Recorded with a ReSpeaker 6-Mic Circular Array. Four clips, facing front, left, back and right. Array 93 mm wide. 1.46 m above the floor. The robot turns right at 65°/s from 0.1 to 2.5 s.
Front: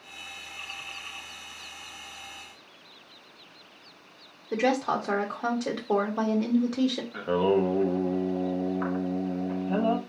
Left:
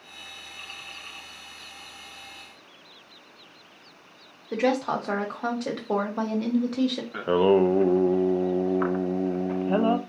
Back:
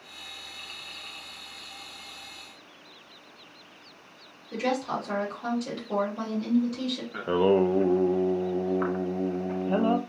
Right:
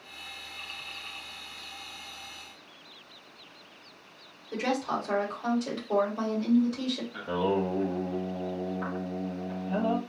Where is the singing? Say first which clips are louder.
Left 9 dB, back 3 dB; 105° left, 0.7 m.